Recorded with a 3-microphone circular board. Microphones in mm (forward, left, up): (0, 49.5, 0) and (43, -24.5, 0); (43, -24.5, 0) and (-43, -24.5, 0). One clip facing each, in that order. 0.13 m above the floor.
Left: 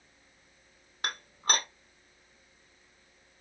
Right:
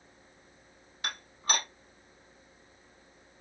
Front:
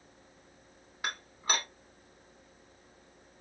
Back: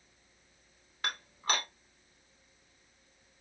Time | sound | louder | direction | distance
1.0 | dishes clattering | left 2 dB, even | 80° left | 2.5 m